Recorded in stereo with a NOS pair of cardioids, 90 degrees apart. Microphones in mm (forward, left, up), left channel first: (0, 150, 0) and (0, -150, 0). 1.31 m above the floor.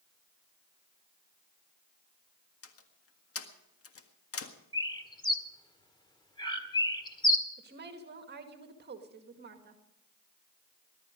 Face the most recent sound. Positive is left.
turn(degrees=-35)